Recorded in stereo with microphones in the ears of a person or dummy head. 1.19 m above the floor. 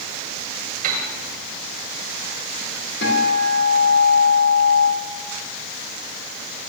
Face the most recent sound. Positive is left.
turn(degrees=60)  # may be behind; listen again after turning